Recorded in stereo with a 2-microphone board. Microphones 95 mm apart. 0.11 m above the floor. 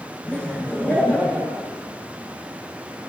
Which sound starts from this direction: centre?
Laughter, at 0.3 s.